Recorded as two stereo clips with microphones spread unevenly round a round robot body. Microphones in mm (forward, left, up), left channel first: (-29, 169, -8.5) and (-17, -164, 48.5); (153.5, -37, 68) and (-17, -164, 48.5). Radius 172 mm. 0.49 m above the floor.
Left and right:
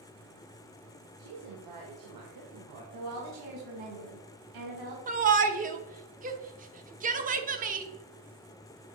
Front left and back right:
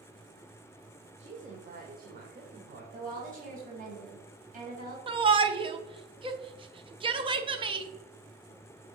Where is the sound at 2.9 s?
100° right, 3.5 m.